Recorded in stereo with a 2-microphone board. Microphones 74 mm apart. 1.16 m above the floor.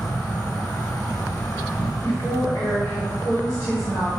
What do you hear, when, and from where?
0.0 s an insect: 60° left (ahead or behind), 1.4 m
2.0 s a woman speaking: 35° left (ahead or behind), 1.7 m